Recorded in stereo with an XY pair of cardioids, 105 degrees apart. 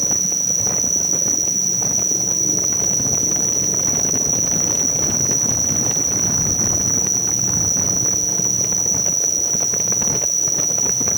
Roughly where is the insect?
Ahead.